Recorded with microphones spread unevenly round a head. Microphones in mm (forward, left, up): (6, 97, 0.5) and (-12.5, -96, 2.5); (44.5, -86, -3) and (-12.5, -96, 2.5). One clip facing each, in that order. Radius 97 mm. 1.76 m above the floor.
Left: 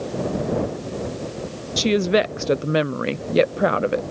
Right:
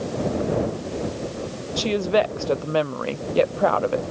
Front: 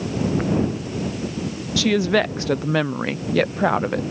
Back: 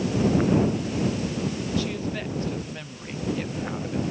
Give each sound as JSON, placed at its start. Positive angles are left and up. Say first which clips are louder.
{"t": 1.8, "sound": "a woman speaking", "louder": "left 2 dB, front 10 dB", "azimuth_deg": 20}